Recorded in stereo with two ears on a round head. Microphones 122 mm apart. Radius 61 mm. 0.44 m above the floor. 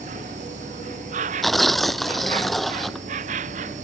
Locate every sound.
0.0 s an insect: 55° right (ahead or behind)
1.4 s tearing paper: centre (ahead or behind)